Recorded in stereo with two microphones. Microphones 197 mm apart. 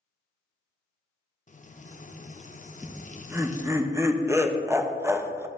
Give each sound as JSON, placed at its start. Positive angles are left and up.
{"t": 1.5, "sound": "frying", "side_deg": 40, "distance_m": 0.5}
{"t": 2.8, "sound": "laughter", "side_deg": -15, "distance_m": 0.7}